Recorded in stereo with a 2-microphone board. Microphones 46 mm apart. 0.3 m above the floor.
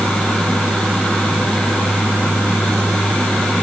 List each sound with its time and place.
Only background noise.